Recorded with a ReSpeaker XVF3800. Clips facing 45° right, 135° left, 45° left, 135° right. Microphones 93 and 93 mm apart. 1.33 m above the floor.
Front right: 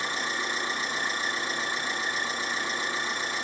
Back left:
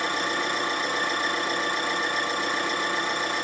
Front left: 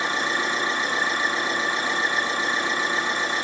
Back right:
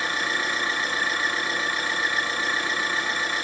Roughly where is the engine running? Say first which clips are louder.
Back left 5 dB, front left 2 dB; behind left.